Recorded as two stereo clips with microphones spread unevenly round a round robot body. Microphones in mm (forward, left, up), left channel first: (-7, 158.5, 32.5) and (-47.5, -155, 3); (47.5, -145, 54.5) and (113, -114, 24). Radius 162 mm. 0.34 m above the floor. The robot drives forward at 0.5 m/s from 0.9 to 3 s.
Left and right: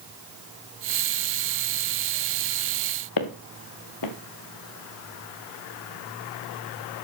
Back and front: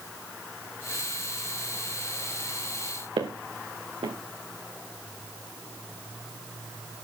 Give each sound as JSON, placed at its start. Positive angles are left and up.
{"t": 3.2, "sound": "footsteps", "azimuth_deg": 55, "distance_m": 1.7}